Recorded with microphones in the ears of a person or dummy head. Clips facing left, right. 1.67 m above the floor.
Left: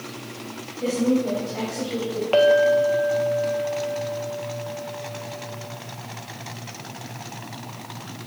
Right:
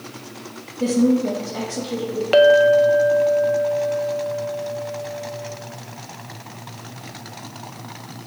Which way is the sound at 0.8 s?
75° right (ahead or behind).